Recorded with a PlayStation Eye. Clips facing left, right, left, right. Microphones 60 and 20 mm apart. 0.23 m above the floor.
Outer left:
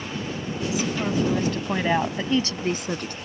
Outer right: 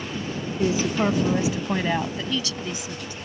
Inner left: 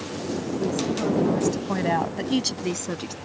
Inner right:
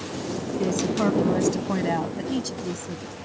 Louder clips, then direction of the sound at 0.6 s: Outer right 4 dB, inner right 3 dB; 40° right (ahead or behind).